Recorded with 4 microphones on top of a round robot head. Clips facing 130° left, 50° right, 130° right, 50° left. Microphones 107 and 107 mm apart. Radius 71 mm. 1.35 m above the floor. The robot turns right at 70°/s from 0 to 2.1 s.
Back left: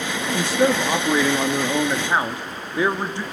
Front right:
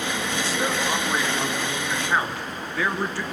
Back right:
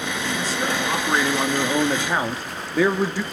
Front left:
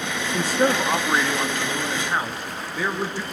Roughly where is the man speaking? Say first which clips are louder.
Back left 9 dB, front left 7 dB; left.